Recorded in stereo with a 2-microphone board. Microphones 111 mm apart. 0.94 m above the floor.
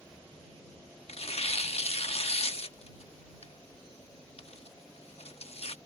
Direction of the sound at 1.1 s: 65° left (ahead or behind).